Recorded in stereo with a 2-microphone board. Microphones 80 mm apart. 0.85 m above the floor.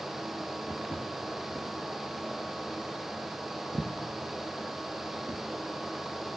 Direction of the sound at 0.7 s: 35° left (ahead or behind).